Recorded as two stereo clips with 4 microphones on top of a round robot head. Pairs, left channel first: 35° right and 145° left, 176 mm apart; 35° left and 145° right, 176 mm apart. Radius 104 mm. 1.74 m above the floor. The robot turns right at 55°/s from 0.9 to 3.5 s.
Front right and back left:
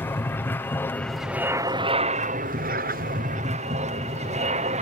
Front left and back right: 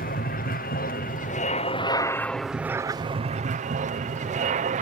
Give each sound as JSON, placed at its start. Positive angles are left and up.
{"t": 0.0, "sound": "an aircraft", "azimuth_deg": 40}